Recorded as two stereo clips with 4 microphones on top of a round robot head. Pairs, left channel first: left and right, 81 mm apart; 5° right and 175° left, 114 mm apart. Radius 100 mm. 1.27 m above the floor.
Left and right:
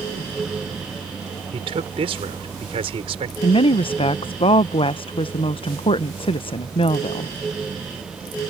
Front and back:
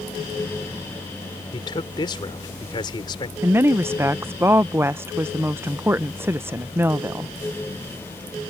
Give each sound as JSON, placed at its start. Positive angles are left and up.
{"t": 1.5, "sound": "a man speaking", "azimuth_deg": -65}
{"t": 3.4, "sound": "a woman speaking", "azimuth_deg": 105}